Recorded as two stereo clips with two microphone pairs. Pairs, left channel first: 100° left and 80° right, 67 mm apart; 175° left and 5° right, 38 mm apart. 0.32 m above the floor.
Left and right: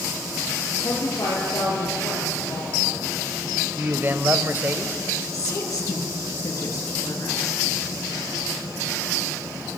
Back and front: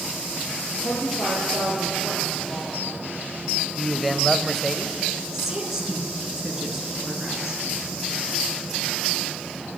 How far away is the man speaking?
About 1.1 m.